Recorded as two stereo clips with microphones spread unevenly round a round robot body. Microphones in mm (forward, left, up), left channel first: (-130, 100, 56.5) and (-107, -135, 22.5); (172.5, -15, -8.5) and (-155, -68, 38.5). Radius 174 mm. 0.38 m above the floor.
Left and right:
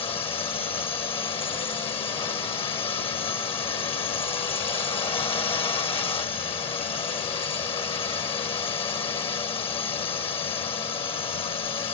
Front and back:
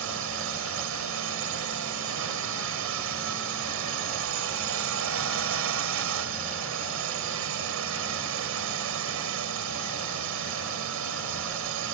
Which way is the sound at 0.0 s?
165° left.